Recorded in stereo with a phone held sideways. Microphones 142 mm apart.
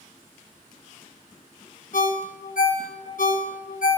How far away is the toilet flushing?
I don't hear a toilet flushing.